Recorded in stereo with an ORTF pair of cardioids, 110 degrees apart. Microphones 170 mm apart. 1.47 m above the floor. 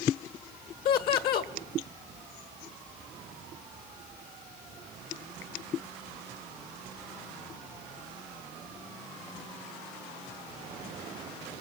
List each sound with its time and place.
0.8 s laughter: 70° left, 1.8 m